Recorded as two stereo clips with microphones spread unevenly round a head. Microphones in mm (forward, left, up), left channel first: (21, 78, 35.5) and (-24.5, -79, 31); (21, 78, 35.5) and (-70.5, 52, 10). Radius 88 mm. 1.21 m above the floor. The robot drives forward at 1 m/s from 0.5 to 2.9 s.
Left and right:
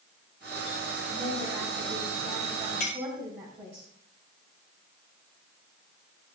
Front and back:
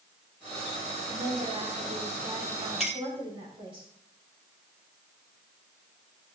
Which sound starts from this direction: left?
A clink, at 2.8 s.